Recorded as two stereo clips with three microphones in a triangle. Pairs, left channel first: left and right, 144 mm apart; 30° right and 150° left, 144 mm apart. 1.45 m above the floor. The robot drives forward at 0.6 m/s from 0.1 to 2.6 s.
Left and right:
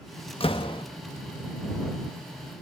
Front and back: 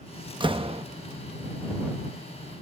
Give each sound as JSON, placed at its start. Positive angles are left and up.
{"t": 0.4, "sound": "a door slam", "azimuth_deg": 115, "distance_m": 0.9}